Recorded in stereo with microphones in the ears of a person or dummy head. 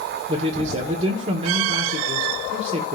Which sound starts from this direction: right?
A man speaking, at 0.3 s.